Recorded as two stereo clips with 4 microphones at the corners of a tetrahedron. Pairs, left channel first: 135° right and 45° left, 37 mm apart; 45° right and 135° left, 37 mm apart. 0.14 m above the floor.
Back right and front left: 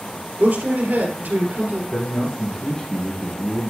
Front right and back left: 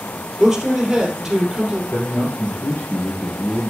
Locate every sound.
0.4 s a man speaking: 55° left, 3 m
1.9 s a man speaking: 70° right, 3 m